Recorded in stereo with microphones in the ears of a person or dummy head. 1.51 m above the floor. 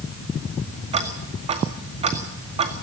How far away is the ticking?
About 1.9 m.